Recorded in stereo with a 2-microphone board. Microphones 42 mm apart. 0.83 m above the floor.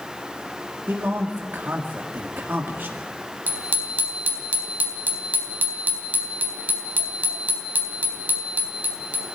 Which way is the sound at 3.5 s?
40° right (ahead or behind).